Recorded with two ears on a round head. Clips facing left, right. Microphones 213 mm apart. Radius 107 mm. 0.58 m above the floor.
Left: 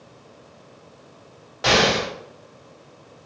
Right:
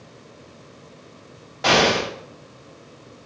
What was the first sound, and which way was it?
An explosion, 5° left (ahead or behind).